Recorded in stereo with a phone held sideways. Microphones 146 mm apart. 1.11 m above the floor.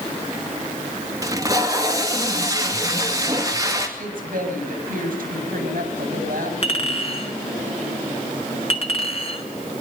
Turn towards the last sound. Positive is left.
turn(degrees=40)  # may be behind; listen again after turning